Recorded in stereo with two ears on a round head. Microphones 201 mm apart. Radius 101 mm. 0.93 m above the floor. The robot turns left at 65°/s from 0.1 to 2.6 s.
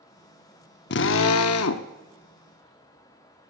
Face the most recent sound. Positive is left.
turn(degrees=15)